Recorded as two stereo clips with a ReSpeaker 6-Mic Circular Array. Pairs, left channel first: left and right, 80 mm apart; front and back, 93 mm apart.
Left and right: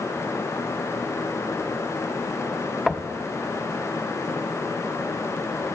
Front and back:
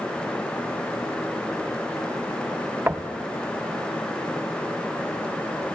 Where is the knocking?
Straight behind, 0.7 m.